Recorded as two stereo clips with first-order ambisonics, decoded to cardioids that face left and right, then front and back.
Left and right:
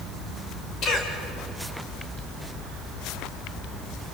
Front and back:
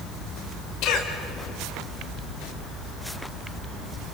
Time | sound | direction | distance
0.8 | a cough | 40° left | 4 m